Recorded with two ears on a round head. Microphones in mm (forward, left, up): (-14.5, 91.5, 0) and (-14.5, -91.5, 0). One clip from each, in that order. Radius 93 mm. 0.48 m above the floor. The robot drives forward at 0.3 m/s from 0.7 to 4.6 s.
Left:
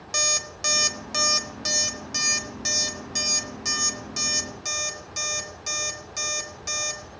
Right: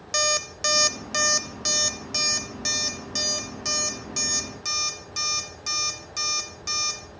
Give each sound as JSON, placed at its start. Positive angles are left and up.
{"t": 0.1, "sound": "an alarm clock", "side_deg": 0, "distance_m": 0.6}